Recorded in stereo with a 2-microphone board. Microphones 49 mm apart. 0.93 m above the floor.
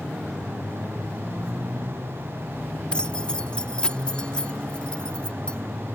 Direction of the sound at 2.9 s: 20° left (ahead or behind).